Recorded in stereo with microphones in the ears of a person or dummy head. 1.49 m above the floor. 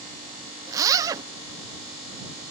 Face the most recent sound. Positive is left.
turn(degrees=-15)  # may be behind; listen again after turning